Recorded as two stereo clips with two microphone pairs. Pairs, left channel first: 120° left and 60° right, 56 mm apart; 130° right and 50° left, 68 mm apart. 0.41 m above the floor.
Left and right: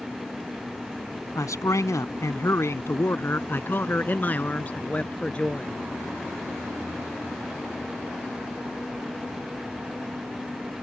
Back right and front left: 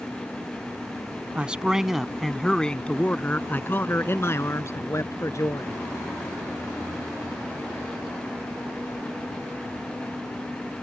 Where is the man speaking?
120° left; by 5.8 s 170° right.